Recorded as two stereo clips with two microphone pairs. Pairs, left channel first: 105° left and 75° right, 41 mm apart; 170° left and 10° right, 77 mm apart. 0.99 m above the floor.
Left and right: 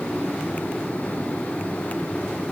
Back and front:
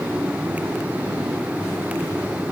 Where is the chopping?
I don't hear chopping.